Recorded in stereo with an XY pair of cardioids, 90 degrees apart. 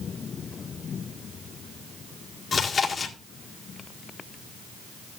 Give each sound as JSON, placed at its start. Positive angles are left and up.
{"t": 2.5, "sound": "chewing", "azimuth_deg": 55, "distance_m": 1.8}